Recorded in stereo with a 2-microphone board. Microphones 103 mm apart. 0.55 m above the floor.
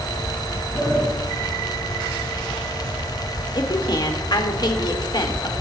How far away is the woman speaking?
About 1.8 m.